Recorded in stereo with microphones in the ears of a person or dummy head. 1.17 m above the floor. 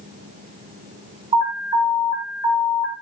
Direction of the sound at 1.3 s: 30° right (ahead or behind).